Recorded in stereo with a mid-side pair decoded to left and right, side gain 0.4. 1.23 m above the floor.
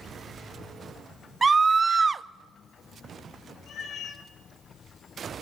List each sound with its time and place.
1.4 s a scream: 35° right, 0.5 m
3.7 s a cat meowing: 70° left, 2.5 m